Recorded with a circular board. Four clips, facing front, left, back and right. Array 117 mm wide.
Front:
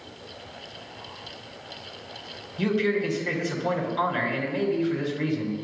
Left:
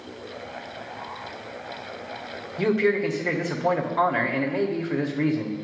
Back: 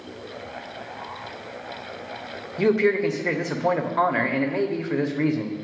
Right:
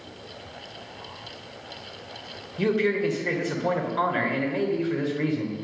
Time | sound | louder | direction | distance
2.6 | a man speaking | left 1 dB, back 5 dB | 165° left | 1.0 m